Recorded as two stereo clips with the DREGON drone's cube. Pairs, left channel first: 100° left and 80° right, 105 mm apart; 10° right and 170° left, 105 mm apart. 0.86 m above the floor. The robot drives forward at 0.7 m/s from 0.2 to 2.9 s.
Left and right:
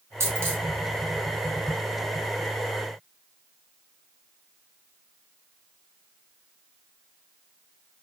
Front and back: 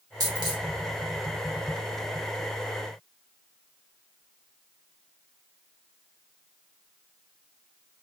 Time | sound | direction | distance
0.2 | a dropped coin | 140° right | 1.3 m